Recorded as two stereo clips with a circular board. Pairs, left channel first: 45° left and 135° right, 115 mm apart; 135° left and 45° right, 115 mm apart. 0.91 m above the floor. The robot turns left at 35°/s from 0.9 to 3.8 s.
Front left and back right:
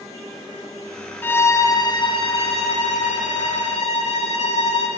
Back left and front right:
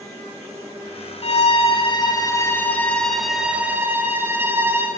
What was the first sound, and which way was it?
A violin, 115° left.